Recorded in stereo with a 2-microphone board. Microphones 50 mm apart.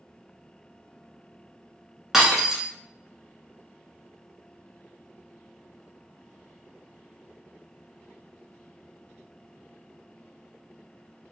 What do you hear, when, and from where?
2.1 s breaking glass: 10° right (ahead or behind), 0.9 m